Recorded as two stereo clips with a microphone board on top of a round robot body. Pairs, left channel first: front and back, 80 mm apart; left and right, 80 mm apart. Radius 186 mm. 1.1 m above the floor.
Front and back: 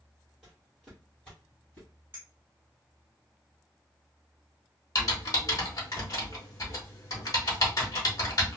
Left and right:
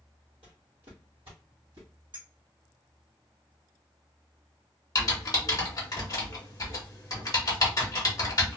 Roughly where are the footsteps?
Right.